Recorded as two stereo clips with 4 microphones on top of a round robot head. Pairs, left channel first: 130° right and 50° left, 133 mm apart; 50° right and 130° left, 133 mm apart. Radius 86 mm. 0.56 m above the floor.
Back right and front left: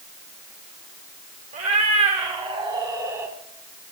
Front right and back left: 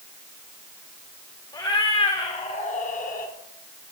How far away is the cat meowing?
About 3 m.